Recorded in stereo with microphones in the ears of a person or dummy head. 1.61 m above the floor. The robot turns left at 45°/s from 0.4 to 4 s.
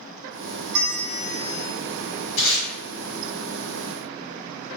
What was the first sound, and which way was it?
A bell, 60° right.